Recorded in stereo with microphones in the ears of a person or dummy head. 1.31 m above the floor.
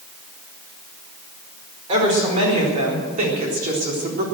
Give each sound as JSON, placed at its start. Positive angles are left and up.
{"t": 1.9, "sound": "a woman speaking", "side_deg": -35, "distance_m": 4.5}